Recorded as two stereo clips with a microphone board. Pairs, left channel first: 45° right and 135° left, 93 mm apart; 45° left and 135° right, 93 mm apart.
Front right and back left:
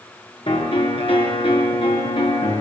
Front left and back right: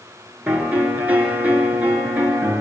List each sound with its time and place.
0.5 s a piano: 60° right, 4.5 m